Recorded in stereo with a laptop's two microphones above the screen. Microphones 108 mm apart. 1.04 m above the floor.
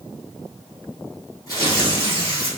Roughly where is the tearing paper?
Left.